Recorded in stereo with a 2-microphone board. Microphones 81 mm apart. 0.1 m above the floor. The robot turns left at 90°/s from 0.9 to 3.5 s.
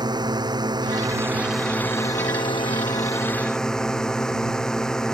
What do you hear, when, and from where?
0.0 s a drone: 115° right; by 5.1 s 10° left